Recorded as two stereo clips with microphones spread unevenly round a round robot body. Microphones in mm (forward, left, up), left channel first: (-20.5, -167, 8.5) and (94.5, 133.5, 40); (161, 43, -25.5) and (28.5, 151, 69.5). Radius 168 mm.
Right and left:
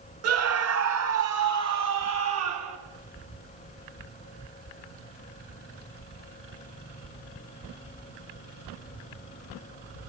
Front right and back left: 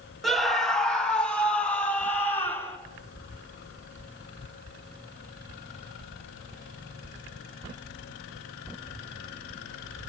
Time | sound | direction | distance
0.2 | a scream | 30° left | 2.5 m